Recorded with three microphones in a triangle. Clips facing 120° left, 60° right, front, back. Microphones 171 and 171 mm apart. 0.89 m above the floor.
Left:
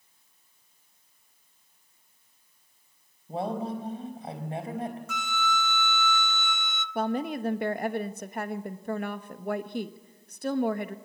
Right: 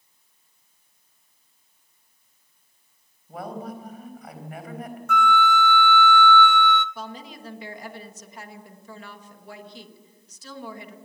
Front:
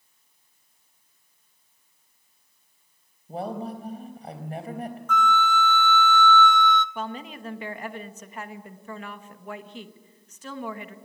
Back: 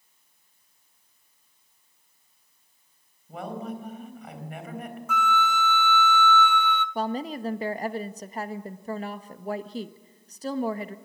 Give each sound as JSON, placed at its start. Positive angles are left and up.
{"t": 3.3, "sound": "a woman speaking", "azimuth_deg": 55, "distance_m": 4.0}
{"t": 5.1, "sound": "a flute", "azimuth_deg": -100, "distance_m": 0.8}
{"t": 7.0, "sound": "a woman speaking", "azimuth_deg": 135, "distance_m": 1.1}